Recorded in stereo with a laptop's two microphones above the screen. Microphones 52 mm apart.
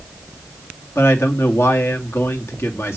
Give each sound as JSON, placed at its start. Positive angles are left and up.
{"t": 0.9, "sound": "a man speaking", "side_deg": 55, "distance_m": 2.5}